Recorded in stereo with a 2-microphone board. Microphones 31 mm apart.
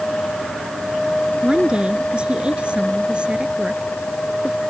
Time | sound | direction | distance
1.4 | a woman speaking | 35° right (ahead or behind) | ?